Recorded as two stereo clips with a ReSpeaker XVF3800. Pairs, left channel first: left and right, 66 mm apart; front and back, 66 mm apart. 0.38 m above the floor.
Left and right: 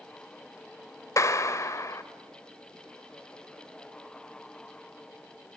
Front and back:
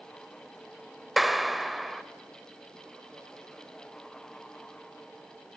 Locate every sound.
1.2 s a clap: 90° left, 1.0 m